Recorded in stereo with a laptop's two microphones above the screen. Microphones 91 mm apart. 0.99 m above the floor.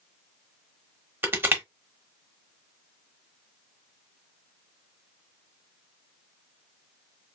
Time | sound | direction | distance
1.2 | crushing | 25° right (ahead or behind) | 0.9 m